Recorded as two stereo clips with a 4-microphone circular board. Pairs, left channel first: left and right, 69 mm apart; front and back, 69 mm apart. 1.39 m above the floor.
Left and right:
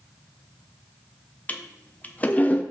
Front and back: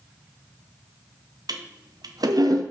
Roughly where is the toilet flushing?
Behind.